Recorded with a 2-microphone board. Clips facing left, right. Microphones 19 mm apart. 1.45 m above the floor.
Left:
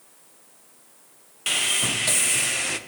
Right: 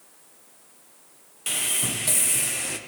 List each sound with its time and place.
1.5 s sawing: 30° left (ahead or behind), 0.9 m